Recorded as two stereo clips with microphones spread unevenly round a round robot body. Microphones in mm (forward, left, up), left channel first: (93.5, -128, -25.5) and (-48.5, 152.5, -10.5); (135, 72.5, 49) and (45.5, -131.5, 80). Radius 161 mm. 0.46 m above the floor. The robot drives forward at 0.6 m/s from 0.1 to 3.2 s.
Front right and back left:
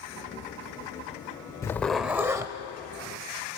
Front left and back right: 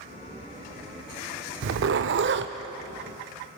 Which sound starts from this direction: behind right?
A zipper, at 1.6 s.